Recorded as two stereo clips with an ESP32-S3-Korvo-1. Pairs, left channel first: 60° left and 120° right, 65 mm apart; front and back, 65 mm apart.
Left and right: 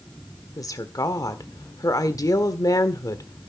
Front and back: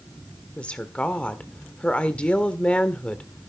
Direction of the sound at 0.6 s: 70° left.